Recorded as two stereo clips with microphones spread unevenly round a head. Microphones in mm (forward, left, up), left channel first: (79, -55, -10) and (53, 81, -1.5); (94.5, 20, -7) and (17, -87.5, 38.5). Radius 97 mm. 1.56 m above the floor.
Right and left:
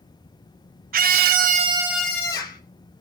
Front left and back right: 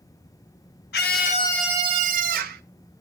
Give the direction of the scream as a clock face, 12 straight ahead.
9 o'clock.